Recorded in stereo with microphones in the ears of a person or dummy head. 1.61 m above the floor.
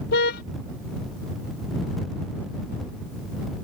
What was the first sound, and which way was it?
A car horn, 60° left (ahead or behind).